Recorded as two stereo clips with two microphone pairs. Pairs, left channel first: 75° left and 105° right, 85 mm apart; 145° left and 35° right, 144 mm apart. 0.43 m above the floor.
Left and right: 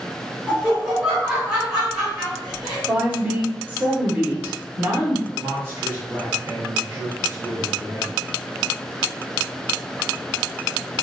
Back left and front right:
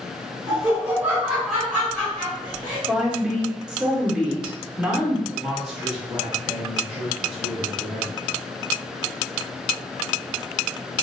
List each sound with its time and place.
0.5 s laughter: 50° right, 1.3 m; by 2.8 s 170° left, 1.4 m
2.9 s a woman speaking: 105° right, 0.8 m
5.3 s a man speaking: 125° right, 1.6 m